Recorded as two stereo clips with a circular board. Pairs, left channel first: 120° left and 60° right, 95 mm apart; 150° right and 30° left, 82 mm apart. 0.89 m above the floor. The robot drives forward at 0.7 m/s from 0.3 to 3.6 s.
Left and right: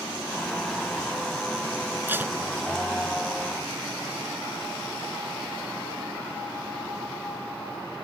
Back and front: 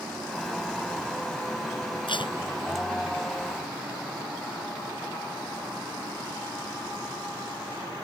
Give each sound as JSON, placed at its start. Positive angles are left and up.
{"t": 2.1, "sound": "tape being pulled", "azimuth_deg": -130}